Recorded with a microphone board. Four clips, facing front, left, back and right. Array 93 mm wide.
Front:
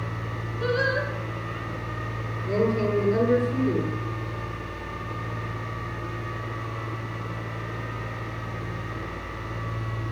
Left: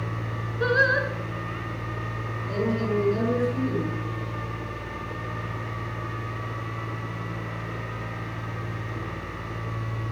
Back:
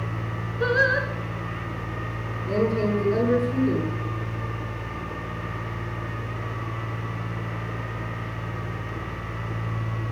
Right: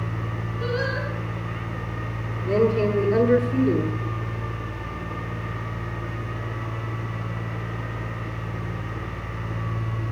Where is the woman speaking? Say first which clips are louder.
Right 7 dB, even; 100° right, 6 m.